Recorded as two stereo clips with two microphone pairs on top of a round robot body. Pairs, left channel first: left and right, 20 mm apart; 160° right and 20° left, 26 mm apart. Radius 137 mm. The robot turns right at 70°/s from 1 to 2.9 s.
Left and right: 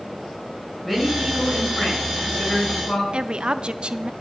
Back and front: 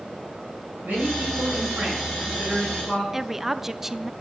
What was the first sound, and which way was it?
A man speaking, straight ahead.